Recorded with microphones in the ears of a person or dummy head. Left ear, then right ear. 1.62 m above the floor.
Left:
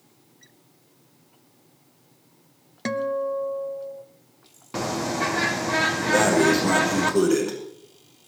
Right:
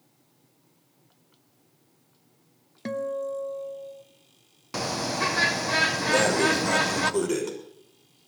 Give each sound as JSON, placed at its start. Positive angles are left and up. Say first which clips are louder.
{"t": 2.9, "sound": "a guitar", "louder": "left 4 dB", "side_deg": 10, "distance_m": 0.9}
{"t": 4.7, "sound": "a bird", "louder": "left 2 dB", "side_deg": -35, "distance_m": 1.2}
{"t": 6.1, "sound": "breathing", "louder": "left 5 dB", "side_deg": -70, "distance_m": 6.5}